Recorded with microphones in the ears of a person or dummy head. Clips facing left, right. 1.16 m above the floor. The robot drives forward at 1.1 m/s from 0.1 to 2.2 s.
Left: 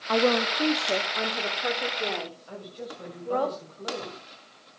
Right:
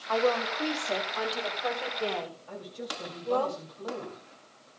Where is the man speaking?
15° left (ahead or behind), 7 m.